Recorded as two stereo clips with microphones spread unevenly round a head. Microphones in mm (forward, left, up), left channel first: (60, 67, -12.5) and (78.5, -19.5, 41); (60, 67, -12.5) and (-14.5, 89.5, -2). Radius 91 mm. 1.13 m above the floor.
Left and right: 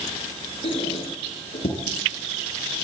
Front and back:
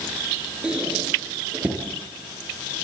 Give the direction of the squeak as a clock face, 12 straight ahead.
9 o'clock.